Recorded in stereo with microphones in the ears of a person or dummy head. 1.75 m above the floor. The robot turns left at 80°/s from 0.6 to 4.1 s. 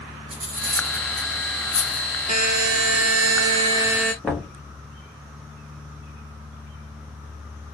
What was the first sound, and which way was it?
Cutlery clinking, 65° right (ahead or behind).